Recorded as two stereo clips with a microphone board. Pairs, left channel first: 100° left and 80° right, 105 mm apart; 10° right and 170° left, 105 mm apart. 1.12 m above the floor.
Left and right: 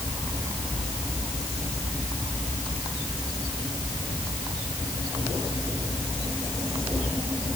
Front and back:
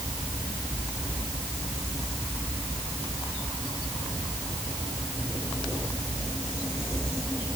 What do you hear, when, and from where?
Only background noise.